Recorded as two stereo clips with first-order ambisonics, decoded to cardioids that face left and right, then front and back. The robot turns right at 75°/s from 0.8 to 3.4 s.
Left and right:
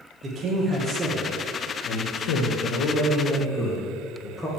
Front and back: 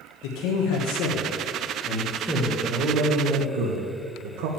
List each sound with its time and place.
0.2 s a man speaking: 25° right, 1.1 m; by 4.5 s 170° left, 1.1 m